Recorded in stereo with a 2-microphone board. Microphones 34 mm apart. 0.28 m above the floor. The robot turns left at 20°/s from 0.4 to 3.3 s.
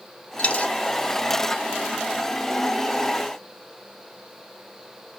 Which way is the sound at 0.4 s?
45° left (ahead or behind).